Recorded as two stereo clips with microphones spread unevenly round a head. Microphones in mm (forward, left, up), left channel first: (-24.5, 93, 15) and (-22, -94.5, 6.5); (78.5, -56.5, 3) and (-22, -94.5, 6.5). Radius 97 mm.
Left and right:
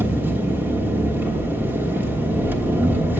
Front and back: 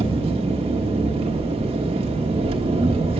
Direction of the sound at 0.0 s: 170° right.